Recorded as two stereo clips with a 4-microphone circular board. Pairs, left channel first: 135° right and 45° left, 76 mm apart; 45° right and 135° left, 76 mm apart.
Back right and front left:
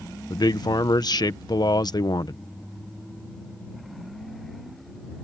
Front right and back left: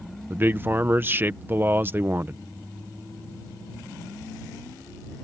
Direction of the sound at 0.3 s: 165° right.